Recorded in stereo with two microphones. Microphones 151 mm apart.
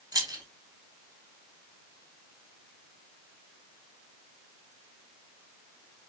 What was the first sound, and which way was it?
Keys jangling, 25° right (ahead or behind).